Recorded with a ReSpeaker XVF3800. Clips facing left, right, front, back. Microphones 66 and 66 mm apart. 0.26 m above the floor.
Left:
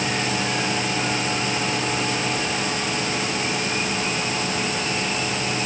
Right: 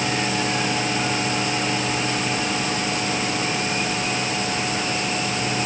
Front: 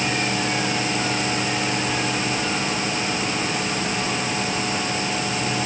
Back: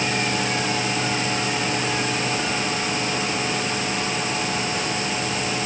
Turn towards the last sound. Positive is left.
No sound to turn to.